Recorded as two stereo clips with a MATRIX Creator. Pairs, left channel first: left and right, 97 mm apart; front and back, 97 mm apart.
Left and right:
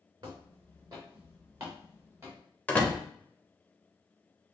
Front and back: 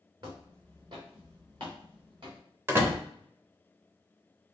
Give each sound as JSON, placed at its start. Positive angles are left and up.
{"t": 0.2, "sound": "footsteps", "azimuth_deg": -140, "distance_m": 1.8}
{"t": 2.7, "sound": "a door slam", "azimuth_deg": 150, "distance_m": 0.8}